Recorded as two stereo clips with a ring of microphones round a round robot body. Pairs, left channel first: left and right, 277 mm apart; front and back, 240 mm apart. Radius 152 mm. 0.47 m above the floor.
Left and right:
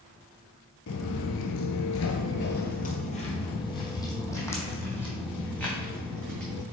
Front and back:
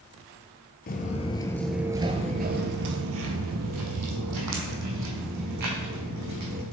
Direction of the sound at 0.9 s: 50° left.